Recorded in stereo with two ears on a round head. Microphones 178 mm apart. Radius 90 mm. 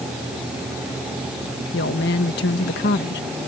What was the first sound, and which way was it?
A woman speaking, 55° left (ahead or behind).